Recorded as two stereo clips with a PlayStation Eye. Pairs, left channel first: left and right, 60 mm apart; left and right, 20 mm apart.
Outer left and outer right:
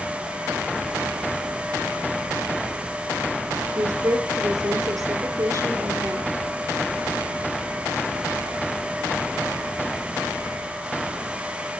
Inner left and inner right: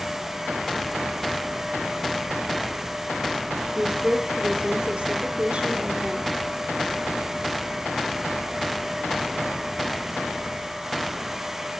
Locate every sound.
3.8 s a woman speaking: 65° right (ahead or behind), 3.5 m